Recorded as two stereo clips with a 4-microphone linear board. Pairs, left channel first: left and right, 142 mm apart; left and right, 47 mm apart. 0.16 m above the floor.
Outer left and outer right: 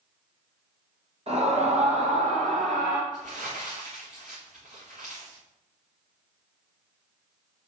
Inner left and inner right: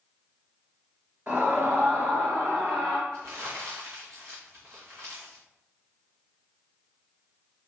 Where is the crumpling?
65° right (ahead or behind), 4.5 m.